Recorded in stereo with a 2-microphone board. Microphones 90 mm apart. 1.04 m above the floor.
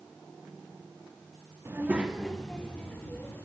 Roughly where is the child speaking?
Right.